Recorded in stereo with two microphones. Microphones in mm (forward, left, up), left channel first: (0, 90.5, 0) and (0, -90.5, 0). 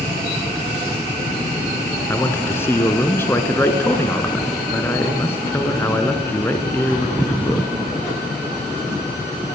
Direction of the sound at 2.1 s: 15° left (ahead or behind).